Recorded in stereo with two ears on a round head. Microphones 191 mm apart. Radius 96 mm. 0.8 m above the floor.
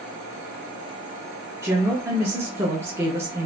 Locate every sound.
1.6 s a woman speaking: 10° right (ahead or behind), 0.8 m